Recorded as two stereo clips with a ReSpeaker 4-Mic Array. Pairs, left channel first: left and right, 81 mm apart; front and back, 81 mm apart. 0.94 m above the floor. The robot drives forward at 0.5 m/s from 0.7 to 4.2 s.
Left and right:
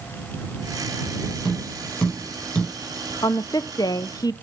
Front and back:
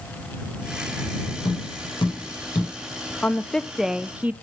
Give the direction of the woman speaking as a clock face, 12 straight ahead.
10 o'clock.